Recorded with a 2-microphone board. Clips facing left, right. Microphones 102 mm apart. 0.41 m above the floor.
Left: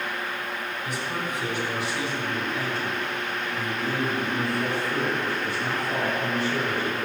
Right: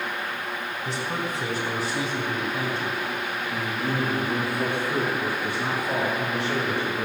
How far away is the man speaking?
About 3.5 m.